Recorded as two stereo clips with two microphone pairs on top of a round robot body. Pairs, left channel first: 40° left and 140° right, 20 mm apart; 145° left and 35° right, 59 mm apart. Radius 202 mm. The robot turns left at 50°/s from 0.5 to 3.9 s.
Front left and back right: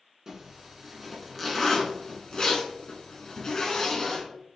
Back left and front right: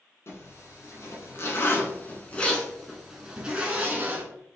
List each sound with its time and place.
0.3 s a zipper: 170° left, 1.9 m; by 4.2 s straight ahead, 1.9 m